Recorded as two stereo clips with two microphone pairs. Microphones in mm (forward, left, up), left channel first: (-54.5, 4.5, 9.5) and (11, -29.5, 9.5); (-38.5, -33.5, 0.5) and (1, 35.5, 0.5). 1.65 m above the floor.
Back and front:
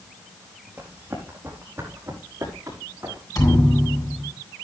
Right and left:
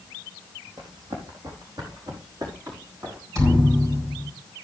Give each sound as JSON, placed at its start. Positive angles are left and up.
{"t": 0.8, "sound": "running footsteps", "azimuth_deg": 40, "distance_m": 4.0}
{"t": 3.4, "sound": "a thud", "azimuth_deg": 110, "distance_m": 6.0}